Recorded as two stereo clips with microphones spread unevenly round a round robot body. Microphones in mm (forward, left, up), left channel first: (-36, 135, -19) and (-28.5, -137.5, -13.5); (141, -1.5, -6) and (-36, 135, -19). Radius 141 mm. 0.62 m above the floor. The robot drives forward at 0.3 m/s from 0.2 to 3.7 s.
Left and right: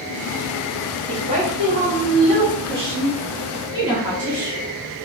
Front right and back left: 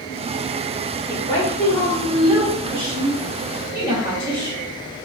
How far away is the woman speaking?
About 1.0 m.